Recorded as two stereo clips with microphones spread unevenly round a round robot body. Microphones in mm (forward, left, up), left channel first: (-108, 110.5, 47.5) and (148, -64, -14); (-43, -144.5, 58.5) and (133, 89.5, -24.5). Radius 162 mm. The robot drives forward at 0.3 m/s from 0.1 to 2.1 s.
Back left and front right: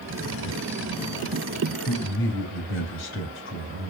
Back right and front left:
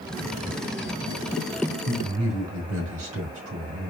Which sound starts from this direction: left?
A man speaking, at 1.9 s.